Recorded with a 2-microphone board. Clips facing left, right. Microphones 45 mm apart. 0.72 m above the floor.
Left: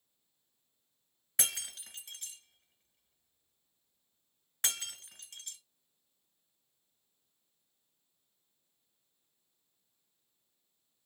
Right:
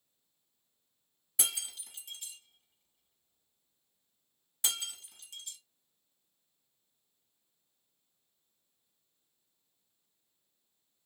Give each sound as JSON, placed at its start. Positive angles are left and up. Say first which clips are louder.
{"t": 1.4, "sound": "breaking glass", "louder": "even", "side_deg": 50, "distance_m": 1.6}